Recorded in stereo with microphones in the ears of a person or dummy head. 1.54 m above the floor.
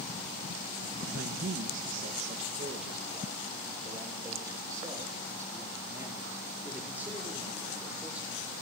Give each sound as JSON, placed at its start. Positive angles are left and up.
{"t": 1.0, "sound": "a man speaking", "side_deg": -60, "distance_m": 2.0}